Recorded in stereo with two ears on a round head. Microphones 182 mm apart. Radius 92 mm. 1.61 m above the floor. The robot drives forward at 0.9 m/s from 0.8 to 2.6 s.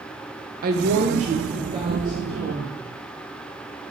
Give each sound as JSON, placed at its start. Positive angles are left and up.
{"t": 0.6, "sound": "a woman speaking", "side_deg": -45, "distance_m": 0.7}